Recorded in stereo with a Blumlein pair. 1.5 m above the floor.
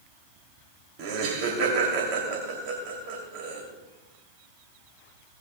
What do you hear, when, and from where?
1.0 s laughter: 40° right, 3 m